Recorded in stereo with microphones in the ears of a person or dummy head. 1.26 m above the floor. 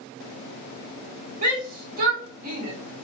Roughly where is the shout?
Right.